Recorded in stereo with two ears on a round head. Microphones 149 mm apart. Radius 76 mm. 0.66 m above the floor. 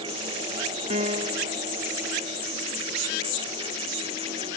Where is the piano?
35° right (ahead or behind).